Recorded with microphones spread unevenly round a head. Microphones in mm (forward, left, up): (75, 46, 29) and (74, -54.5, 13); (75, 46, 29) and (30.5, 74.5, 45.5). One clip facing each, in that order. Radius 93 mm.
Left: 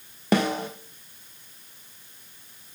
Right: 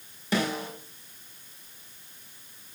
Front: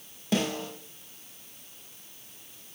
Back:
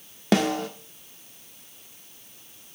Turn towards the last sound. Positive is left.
turn(degrees=150)